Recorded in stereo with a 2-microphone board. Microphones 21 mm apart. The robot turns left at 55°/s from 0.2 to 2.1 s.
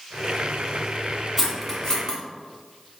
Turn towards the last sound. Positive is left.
turn(degrees=25)  # may be behind; listen again after turning